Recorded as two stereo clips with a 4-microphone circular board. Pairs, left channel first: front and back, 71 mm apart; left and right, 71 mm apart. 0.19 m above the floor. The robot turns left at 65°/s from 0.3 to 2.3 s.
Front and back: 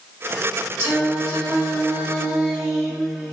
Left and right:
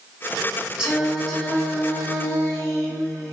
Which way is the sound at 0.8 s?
160° right.